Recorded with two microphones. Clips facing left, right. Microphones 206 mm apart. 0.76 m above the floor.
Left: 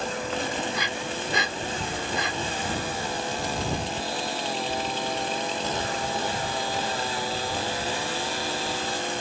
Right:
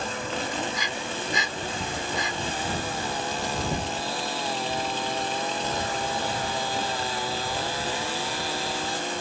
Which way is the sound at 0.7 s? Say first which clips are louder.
Left 1 dB; 70° left (ahead or behind).